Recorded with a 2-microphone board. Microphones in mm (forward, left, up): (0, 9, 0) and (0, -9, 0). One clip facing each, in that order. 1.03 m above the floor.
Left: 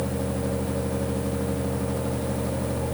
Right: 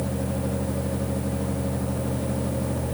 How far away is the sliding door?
I don't hear a sliding door.